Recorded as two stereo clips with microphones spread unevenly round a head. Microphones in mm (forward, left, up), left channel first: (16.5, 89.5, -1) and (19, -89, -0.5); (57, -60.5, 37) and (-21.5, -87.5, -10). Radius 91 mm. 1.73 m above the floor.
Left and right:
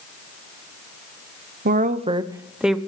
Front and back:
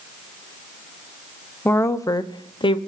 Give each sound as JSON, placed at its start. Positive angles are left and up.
{"t": 1.6, "sound": "a woman speaking", "azimuth_deg": -50, "distance_m": 1.1}